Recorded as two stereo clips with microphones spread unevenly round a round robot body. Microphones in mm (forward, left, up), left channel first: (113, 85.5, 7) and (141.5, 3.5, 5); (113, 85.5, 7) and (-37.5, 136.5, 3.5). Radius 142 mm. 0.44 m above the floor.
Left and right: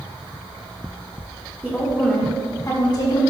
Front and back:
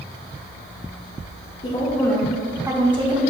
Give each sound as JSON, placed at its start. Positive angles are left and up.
{"t": 1.6, "sound": "a woman speaking", "azimuth_deg": -10, "distance_m": 1.4}